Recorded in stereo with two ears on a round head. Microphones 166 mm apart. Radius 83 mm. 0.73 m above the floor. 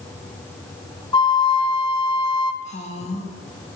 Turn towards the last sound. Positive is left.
turn(degrees=35)  # may be behind; listen again after turning